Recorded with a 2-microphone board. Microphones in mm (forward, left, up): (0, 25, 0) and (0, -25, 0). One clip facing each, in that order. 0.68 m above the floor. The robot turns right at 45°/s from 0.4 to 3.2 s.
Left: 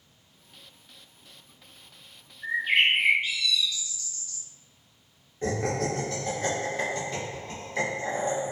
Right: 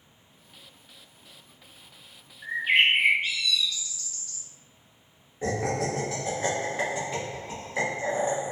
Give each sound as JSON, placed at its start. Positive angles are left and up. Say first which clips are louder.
{"t": 2.4, "sound": "a bird", "louder": "right 1 dB", "azimuth_deg": -155, "distance_m": 1.3}
{"t": 5.4, "sound": "laughter", "louder": "even", "side_deg": -10, "distance_m": 0.8}